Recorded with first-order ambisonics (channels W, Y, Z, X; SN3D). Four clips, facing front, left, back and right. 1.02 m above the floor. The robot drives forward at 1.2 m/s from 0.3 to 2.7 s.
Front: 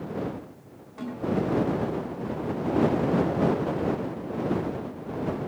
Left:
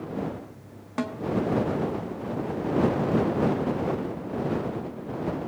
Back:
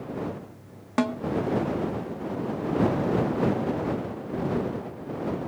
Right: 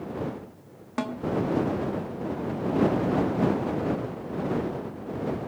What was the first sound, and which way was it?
A snare drum, straight behind.